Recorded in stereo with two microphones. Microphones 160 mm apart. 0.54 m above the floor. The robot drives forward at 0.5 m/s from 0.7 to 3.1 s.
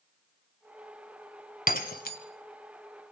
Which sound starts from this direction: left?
Breaking glass, at 1.7 s.